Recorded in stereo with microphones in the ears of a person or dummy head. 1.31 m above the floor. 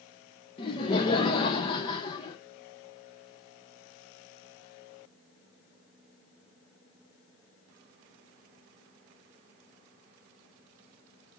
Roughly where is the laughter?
Left.